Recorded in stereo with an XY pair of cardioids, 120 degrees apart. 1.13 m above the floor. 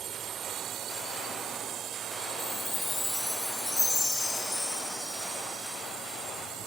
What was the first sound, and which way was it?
A drone, 55° right.